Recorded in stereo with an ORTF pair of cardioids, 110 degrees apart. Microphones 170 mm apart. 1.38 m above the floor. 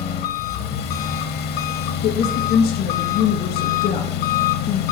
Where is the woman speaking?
70° left, 1.5 m.